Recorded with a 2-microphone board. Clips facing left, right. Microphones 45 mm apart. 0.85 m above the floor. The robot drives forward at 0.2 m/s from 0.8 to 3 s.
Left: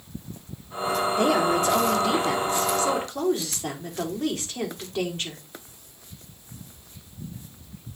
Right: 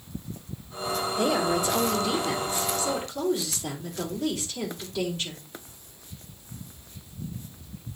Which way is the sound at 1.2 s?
45° left (ahead or behind).